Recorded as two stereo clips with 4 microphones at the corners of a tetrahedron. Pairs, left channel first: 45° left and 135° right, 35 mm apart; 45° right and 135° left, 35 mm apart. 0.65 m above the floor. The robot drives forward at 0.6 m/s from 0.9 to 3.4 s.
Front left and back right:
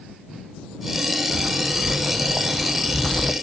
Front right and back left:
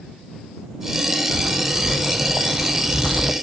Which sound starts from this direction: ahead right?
Footsteps, at 1.3 s.